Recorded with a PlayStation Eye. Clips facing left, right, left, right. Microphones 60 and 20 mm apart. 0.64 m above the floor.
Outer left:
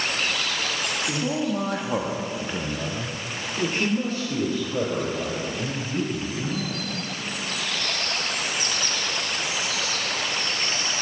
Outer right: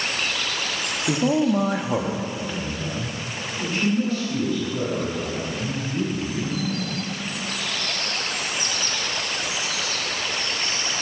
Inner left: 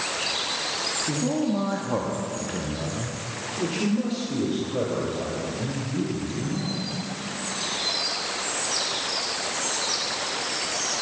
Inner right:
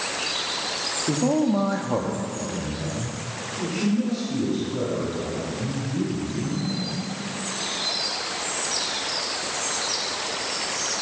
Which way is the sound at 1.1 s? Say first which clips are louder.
Outer right 8 dB, inner right 6 dB; 35° right (ahead or behind).